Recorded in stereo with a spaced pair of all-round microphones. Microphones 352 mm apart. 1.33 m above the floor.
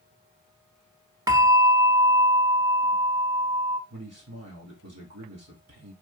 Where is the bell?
10° right (ahead or behind), 0.9 m.